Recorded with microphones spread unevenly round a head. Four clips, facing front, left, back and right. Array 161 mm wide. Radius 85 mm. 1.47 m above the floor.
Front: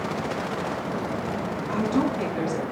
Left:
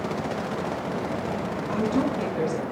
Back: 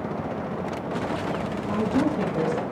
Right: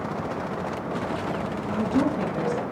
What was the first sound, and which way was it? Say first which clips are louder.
A woman speaking: right 1 dB, back 1 dB; 175° left.